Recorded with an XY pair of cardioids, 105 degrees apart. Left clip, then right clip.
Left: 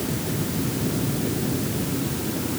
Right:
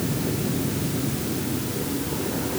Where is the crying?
No crying in this recording.